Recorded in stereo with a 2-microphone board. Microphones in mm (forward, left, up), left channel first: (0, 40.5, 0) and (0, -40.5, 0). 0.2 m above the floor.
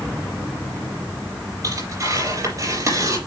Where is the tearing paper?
45° right (ahead or behind), 4.5 m.